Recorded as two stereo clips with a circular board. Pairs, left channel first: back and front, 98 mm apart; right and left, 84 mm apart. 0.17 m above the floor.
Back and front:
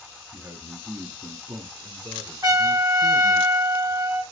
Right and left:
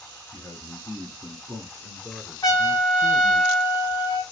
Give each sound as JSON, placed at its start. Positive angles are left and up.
{"t": 0.3, "sound": "a man speaking", "azimuth_deg": -60, "distance_m": 1.7}
{"t": 2.4, "sound": "a trumpet", "azimuth_deg": -45, "distance_m": 1.3}